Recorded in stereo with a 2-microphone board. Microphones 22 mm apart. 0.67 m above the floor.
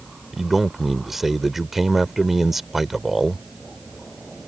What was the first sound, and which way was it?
A man speaking, 10° right (ahead or behind).